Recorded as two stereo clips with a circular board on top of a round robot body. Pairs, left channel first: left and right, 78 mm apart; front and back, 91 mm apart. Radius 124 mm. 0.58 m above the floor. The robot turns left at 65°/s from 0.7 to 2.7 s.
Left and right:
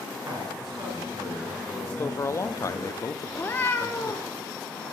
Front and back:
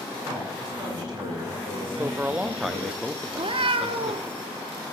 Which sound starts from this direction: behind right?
A man speaking, at 0.2 s.